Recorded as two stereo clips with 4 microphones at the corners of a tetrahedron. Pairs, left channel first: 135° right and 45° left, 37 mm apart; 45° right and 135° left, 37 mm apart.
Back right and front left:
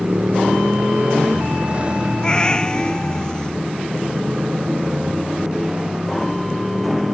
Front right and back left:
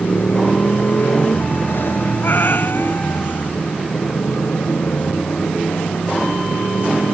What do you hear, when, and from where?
0.0 s a motorcycle: 10° right; by 7.1 s 25° right
2.2 s a cat meowing: 70° right